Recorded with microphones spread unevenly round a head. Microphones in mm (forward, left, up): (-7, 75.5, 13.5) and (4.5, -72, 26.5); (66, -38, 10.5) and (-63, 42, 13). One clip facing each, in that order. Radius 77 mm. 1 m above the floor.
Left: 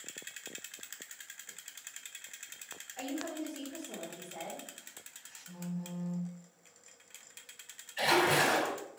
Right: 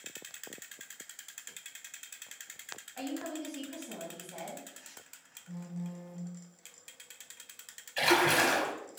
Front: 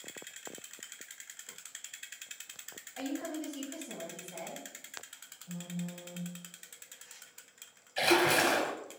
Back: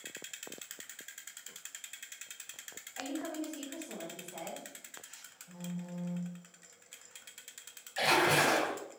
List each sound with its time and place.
3.0 s a woman speaking: 55° right, 1.6 m
5.5 s a phone buzzing: 25° right, 0.6 m
8.0 s a splash: 70° right, 1.1 m